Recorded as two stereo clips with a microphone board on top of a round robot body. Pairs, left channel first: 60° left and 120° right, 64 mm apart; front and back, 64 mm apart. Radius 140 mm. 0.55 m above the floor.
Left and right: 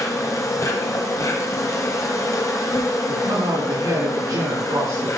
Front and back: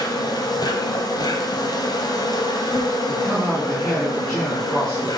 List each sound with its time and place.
0.0 s an insect: 15° left, 1.9 m
3.1 s a man speaking: 80° right, 6.5 m